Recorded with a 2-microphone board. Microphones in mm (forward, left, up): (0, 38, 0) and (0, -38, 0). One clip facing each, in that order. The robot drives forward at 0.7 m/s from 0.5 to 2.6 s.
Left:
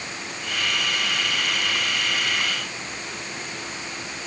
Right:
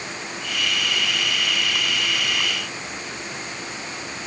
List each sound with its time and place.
Only background noise.